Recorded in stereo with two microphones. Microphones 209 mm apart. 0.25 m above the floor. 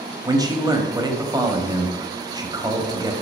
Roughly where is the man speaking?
Right.